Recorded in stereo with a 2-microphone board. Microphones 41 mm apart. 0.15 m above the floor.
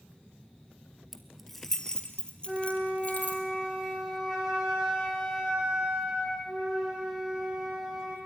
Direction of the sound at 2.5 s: 15° right (ahead or behind).